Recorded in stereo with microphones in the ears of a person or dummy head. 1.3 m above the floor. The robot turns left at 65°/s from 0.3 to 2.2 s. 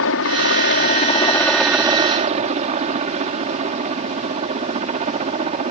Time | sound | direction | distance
0.0 | a helicopter | 90° left | ?